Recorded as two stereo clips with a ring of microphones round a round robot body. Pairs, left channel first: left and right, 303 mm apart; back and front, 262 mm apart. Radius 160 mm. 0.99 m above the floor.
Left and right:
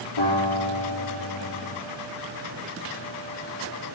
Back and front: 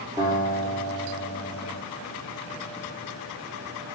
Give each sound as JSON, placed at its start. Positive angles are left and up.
{"t": 0.2, "sound": "a guitar", "azimuth_deg": 75, "distance_m": 4.5}